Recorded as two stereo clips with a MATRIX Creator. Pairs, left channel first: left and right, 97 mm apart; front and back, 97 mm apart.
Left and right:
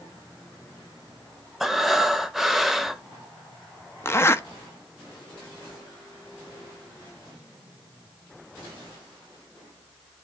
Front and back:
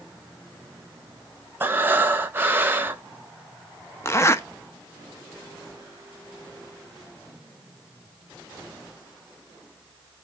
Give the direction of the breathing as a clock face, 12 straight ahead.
6 o'clock.